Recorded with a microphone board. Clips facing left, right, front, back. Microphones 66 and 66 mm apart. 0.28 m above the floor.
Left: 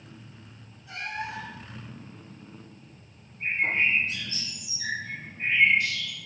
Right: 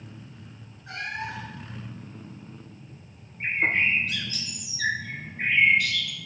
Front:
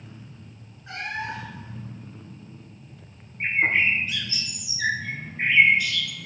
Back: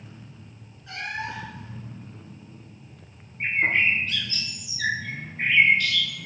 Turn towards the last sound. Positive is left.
turn(degrees=-80)